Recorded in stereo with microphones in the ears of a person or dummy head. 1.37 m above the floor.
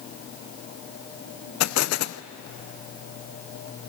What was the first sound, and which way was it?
An explosion, 80° left.